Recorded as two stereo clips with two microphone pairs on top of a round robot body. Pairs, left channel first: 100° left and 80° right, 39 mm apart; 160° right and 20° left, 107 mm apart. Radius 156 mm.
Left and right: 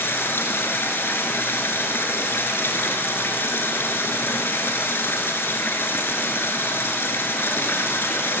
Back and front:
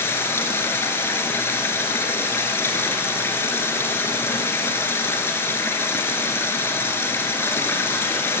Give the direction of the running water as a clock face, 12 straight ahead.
8 o'clock.